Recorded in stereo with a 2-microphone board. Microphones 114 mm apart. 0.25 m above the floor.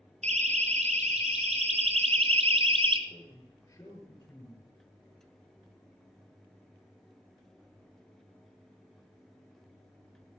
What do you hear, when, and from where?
0.2 s a siren: 80° right, 4 m; by 3.0 s 50° right (ahead or behind), 1.4 m
3.1 s a man speaking: 20° left (ahead or behind), 5 m